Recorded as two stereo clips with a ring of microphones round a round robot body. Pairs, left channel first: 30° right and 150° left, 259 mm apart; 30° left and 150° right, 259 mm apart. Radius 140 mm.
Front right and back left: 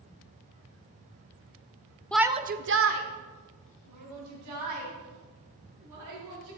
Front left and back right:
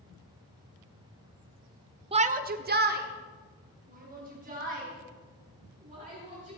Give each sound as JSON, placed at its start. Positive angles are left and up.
{"t": 2.1, "sound": "a shout", "azimuth_deg": -110, "distance_m": 0.9}